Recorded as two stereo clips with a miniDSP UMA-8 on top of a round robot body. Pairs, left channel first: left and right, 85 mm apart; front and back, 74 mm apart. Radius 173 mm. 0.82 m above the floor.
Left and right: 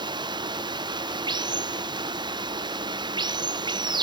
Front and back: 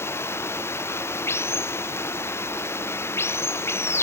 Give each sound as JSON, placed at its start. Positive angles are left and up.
{"t": 0.0, "sound": "running water", "azimuth_deg": -55}